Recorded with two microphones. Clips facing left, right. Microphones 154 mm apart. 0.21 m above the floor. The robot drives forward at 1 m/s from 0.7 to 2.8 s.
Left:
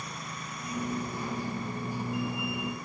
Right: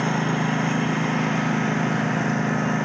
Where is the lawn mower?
75° right (ahead or behind); by 2.9 s 80° right.